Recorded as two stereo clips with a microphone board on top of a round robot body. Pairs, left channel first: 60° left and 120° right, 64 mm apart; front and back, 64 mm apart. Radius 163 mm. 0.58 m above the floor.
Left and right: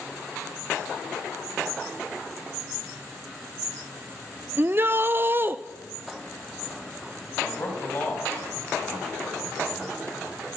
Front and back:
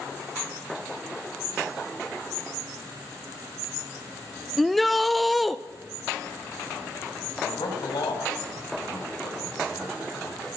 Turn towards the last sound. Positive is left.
turn(degrees=0)